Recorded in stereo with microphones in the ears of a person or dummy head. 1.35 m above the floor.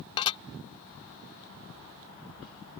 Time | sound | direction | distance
0.2 | dishes clattering | 30° left (ahead or behind) | ?